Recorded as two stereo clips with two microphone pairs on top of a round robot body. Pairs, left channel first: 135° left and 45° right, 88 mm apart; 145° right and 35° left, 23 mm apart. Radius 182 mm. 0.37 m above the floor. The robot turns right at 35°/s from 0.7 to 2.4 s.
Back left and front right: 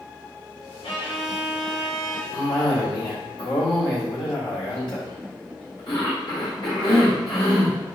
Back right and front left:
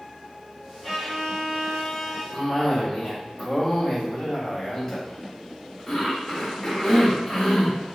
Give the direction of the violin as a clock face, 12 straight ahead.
7 o'clock.